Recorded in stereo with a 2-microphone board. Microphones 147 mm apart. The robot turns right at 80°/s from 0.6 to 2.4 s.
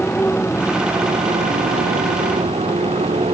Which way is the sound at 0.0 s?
170° left.